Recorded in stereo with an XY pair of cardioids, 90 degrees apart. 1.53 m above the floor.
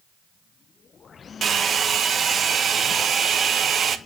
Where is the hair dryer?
55° right, 1.1 m.